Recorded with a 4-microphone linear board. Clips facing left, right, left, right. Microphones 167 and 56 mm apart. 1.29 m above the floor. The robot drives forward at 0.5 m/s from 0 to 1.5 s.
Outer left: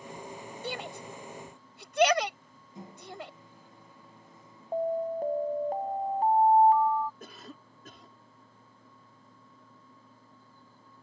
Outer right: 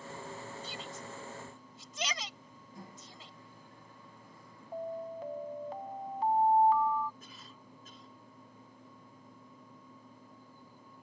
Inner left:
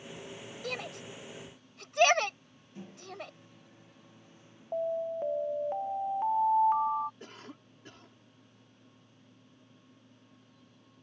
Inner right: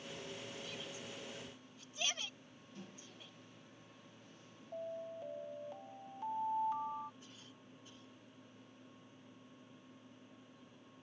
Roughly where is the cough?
Left.